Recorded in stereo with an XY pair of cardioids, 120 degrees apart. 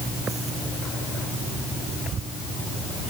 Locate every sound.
Only background noise.